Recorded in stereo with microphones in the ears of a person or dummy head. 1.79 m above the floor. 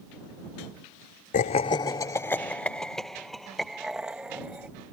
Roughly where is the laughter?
Left.